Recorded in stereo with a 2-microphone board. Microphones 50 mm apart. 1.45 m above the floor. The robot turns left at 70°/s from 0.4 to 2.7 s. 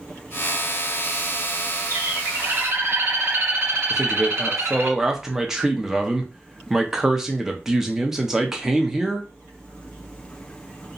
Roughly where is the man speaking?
Centre.